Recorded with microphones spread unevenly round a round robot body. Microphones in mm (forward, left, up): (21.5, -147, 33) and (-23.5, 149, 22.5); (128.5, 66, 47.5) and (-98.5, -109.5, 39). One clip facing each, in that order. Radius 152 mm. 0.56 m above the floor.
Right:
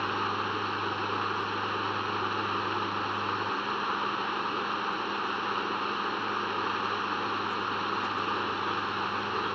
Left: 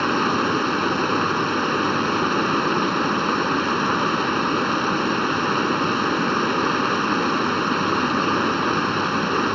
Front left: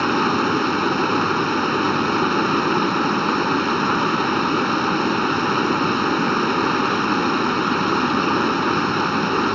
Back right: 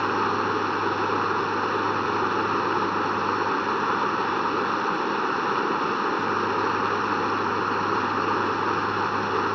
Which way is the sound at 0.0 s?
80° left.